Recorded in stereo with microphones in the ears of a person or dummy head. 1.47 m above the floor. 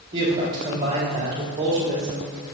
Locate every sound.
0.1 s a woman speaking: 20° right (ahead or behind), 1.8 m